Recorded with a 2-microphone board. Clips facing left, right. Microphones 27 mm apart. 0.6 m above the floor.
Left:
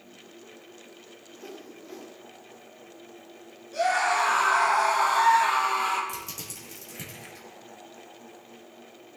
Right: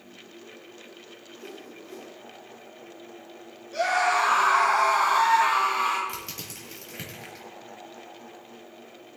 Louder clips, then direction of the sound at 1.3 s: Even; 30° left (ahead or behind).